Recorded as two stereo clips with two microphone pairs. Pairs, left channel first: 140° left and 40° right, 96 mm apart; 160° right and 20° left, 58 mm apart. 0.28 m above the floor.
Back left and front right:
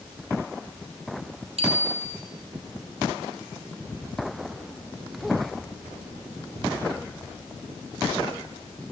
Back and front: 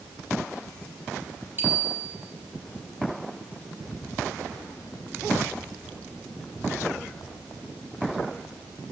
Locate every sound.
1.6 s a bicycle bell: 35° right, 5.5 m